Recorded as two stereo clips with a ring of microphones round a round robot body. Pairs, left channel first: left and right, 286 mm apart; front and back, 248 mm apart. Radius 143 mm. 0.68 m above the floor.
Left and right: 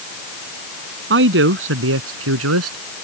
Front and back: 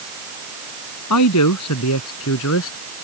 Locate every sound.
1.1 s a man speaking: 40° right; by 2.8 s 50° right